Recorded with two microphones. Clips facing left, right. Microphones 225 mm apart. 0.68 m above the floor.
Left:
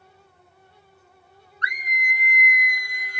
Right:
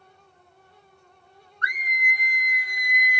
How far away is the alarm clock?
I don't hear an alarm clock.